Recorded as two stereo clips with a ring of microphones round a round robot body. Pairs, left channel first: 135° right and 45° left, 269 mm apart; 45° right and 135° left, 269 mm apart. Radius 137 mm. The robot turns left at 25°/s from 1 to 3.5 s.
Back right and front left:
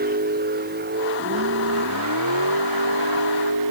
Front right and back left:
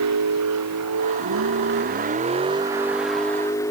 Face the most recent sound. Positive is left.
turn(degrees=35)